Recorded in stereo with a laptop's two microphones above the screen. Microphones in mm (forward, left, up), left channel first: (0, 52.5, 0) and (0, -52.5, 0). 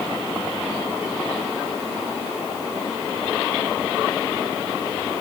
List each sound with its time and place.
Only background noise.